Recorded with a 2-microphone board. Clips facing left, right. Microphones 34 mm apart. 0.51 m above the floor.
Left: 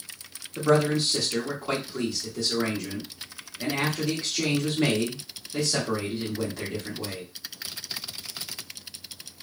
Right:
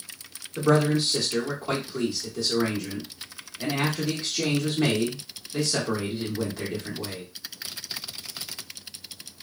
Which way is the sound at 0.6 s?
5° right (ahead or behind).